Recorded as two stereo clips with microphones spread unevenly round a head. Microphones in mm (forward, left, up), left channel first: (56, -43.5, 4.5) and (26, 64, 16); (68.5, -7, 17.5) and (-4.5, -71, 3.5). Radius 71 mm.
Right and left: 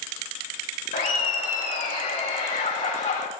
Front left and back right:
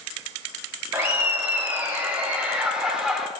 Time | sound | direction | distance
0.9 | laughter | 75° right | 3 m